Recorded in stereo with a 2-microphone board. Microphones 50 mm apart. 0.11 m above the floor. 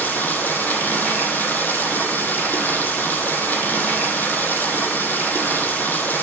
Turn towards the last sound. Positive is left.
turn(degrees=35)  # may be behind; listen again after turning